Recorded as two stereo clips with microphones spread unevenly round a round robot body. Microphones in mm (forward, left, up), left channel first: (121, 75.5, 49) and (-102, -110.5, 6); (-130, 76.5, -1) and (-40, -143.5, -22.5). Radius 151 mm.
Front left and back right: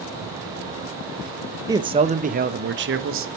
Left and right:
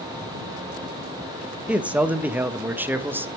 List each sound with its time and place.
1.7 s a man speaking: 130° right, 0.9 m; by 3.3 s 145° right, 1.4 m